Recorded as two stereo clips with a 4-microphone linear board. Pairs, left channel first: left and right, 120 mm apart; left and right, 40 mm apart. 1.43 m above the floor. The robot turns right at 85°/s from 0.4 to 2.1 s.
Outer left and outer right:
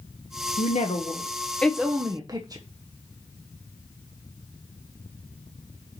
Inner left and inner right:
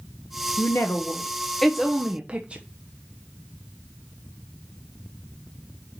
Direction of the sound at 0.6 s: 80° left.